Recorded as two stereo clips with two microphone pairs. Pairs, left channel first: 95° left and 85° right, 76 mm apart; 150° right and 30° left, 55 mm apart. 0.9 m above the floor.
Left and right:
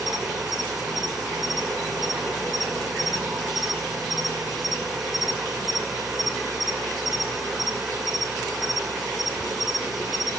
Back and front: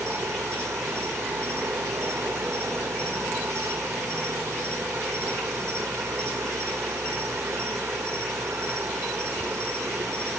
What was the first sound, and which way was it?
An insect, straight ahead.